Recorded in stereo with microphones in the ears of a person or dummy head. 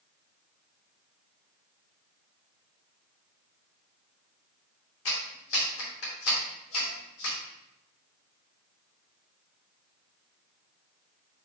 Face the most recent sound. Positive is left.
turn(degrees=85)